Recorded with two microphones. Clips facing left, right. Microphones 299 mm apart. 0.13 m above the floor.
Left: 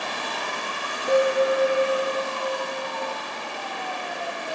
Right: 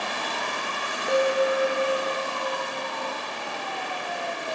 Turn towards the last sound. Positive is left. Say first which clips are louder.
# left 2 dB
turn(degrees=45)  # may be behind; listen again after turning